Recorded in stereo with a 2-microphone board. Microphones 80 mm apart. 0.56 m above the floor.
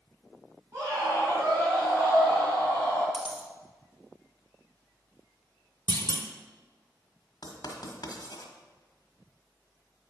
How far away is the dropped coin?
About 1.3 m.